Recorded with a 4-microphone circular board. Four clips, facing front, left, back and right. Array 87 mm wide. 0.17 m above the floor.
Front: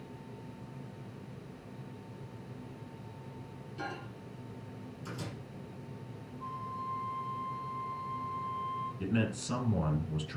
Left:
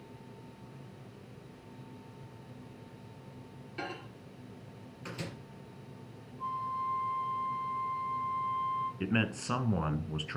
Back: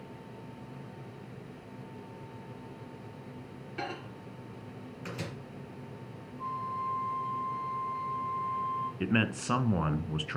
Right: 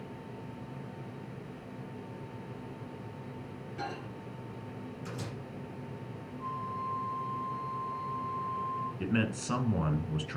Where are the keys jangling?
No keys jangling in this recording.